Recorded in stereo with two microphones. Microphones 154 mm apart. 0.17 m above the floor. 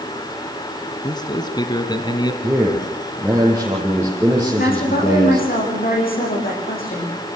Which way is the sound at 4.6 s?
70° left (ahead or behind).